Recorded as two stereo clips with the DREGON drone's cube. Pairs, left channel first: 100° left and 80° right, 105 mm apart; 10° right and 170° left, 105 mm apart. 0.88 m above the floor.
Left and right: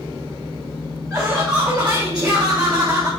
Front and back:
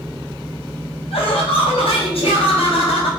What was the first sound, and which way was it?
Laughter, 5° right.